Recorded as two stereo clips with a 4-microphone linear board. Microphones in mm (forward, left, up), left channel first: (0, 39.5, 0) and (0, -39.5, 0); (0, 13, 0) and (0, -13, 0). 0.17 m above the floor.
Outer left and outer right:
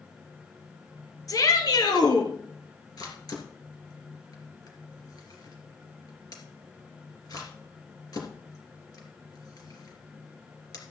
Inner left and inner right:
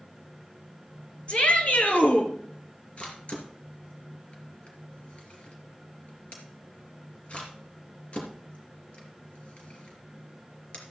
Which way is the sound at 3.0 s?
55° left (ahead or behind).